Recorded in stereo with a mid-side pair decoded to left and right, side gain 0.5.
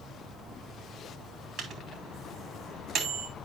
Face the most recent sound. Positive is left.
turn(degrees=-70)